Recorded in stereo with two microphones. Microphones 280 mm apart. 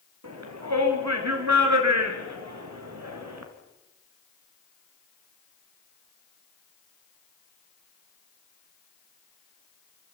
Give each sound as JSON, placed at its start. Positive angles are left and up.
{"t": 0.2, "sound": "a shout", "side_deg": -70, "distance_m": 4.5}